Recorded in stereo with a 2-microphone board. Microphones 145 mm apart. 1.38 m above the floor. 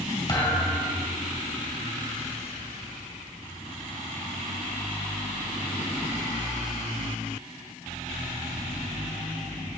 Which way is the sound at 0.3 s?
30° left (ahead or behind).